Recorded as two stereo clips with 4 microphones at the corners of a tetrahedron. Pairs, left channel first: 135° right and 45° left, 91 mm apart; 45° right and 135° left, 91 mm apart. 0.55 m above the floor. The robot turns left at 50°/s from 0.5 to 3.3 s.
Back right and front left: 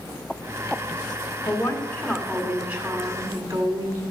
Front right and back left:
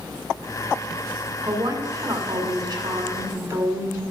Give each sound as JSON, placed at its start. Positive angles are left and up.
{"t": 1.4, "sound": "a woman speaking", "azimuth_deg": 180, "distance_m": 1.9}